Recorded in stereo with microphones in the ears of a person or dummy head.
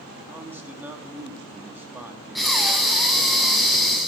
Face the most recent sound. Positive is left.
turn(degrees=0)  # may be behind; listen again after turning